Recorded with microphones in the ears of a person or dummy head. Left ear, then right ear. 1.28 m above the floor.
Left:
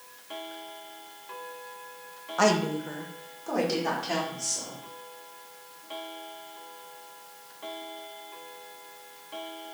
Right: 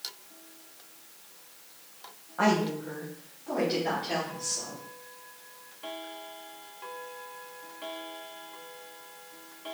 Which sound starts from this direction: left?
A woman speaking, at 2.4 s.